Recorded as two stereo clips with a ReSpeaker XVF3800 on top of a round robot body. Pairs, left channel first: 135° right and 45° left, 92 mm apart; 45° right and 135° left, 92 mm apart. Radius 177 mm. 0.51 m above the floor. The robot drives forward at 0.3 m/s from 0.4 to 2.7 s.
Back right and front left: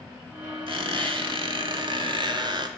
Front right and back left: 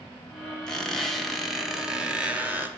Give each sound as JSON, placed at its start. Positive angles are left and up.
{"t": 0.7, "sound": "a squeak", "azimuth_deg": 40, "distance_m": 1.3}